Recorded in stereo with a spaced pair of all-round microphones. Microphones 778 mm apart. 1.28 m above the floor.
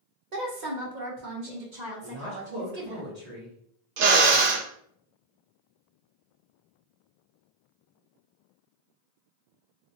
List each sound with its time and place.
0.3 s a woman speaking: 55° right (ahead or behind), 1.0 m; by 3.0 s 45° right (ahead or behind), 2.5 m
2.0 s a woman speaking: 85° right, 1.6 m
4.0 s a drill: 60° right (ahead or behind), 0.6 m